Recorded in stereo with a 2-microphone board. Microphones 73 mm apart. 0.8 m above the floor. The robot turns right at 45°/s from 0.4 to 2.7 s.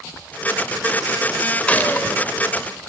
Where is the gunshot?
15° left (ahead or behind), 1.6 m; by 2.2 s 40° left (ahead or behind), 1.6 m.